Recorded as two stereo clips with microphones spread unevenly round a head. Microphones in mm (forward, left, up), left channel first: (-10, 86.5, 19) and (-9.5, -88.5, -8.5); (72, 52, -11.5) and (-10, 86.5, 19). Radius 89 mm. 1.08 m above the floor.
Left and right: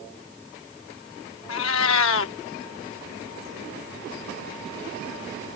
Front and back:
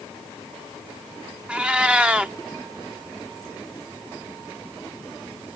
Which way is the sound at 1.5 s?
85° left.